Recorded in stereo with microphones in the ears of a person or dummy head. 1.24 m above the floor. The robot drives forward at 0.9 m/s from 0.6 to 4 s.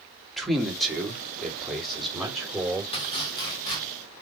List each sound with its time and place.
0.4 s a man speaking: centre (ahead or behind), 2 m
2.9 s chopping: 30° left (ahead or behind), 2.5 m; by 3.8 s 20° left (ahead or behind), 3 m